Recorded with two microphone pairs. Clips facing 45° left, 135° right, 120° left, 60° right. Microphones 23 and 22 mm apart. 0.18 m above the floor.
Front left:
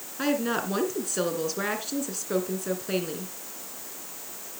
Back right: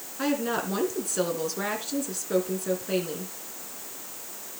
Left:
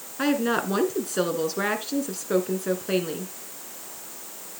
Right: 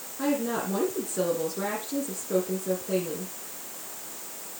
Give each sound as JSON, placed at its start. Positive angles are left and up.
{"t": 0.2, "sound": "a woman speaking", "azimuth_deg": 130, "distance_m": 2.5}